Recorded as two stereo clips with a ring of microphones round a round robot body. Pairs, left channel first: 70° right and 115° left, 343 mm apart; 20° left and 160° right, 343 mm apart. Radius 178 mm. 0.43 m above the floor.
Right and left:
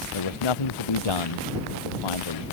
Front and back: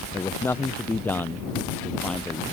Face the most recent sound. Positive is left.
turn(degrees=-65)